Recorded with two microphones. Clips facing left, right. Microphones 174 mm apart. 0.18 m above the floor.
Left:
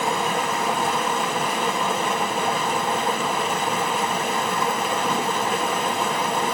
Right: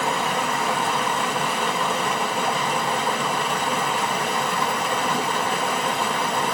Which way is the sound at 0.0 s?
5° left (ahead or behind).